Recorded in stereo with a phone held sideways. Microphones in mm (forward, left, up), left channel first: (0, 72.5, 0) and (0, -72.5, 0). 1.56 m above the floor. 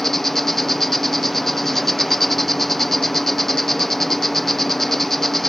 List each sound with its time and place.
0.0 s an insect: centre (ahead or behind)